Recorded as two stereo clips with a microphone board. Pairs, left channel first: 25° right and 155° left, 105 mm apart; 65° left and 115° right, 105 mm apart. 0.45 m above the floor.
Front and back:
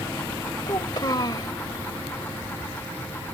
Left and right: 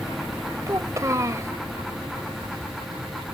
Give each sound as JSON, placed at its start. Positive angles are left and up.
{"t": 0.7, "sound": "a child speaking", "azimuth_deg": -60}